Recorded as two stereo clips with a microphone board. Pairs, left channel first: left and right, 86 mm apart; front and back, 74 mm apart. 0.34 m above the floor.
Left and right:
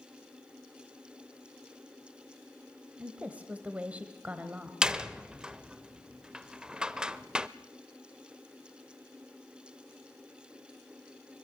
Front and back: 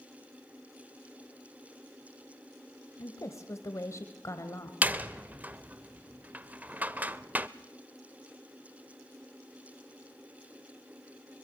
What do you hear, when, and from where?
3.0 s a woman speaking: 20° right, 1.3 m
4.8 s a door slam: 155° right, 0.6 m